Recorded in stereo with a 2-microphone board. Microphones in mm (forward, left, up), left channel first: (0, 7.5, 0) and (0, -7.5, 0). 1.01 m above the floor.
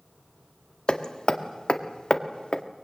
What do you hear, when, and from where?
0.9 s hammering: 80° left, 1.6 m